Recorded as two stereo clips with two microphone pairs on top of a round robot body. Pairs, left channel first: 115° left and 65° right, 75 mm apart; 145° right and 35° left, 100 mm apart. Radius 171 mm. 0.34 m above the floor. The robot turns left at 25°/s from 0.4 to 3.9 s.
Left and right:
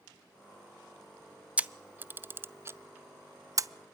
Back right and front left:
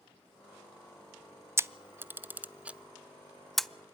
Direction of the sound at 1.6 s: 10° left.